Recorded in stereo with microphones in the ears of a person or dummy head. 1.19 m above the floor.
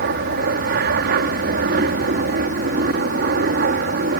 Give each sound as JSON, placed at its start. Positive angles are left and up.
{"t": 0.0, "sound": "an aircraft", "side_deg": -55}